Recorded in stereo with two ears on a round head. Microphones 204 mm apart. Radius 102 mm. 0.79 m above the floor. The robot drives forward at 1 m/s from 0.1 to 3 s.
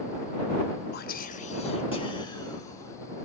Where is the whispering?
45° left (ahead or behind), 1.0 m; by 3.3 s 15° left (ahead or behind), 2.5 m.